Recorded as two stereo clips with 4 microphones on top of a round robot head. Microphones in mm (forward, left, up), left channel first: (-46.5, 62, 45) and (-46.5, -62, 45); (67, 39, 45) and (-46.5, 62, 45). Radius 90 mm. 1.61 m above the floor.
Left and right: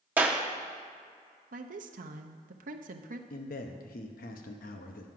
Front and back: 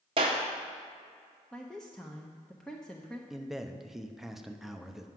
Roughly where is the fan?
No fan in this recording.